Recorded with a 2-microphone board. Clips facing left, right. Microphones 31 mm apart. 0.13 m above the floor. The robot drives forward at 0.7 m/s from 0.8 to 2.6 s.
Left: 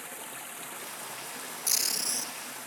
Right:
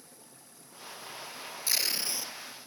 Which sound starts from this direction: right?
Tape being pulled, at 1.7 s.